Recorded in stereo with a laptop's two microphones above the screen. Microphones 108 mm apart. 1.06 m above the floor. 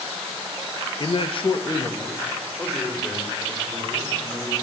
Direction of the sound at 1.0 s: 40° left (ahead or behind).